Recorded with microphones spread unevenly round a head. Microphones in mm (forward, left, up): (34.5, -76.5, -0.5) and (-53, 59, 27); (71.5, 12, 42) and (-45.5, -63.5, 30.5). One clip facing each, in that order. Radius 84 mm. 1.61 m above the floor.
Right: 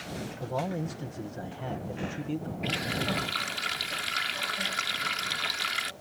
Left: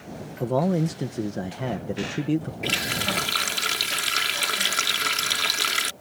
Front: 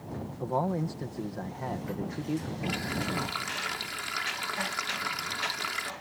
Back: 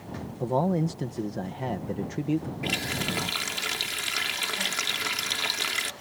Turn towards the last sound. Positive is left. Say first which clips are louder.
# left 2 dB, back 1 dB
turn(degrees=140)